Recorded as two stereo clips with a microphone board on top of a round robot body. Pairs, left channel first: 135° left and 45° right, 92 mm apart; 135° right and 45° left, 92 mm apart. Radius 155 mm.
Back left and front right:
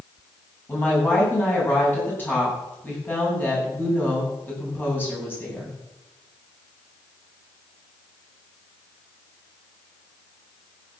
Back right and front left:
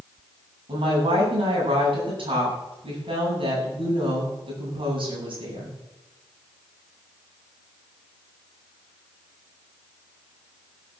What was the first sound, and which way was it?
A woman speaking, 65° left.